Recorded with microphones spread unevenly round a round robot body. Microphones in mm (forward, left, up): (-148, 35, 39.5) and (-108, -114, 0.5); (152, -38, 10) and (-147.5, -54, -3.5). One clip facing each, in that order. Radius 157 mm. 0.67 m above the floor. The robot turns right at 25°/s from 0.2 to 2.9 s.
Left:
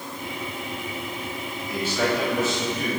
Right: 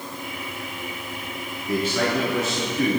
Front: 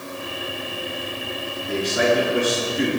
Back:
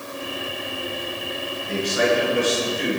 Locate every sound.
1.7 s a man speaking: 45° right, 7.5 m; by 3.0 s 15° right, 7.5 m